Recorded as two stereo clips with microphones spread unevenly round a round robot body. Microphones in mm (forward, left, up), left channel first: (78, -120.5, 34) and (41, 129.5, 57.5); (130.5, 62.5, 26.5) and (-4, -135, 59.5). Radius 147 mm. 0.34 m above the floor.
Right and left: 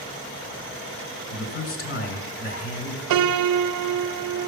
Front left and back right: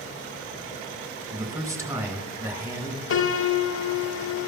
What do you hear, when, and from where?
1.3 s a man speaking: 45° right, 2.5 m
3.1 s a piano: 100° left, 0.5 m